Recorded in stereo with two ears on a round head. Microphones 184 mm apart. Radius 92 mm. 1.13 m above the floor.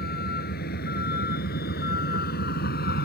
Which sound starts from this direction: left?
A vehicle, at 0.0 s.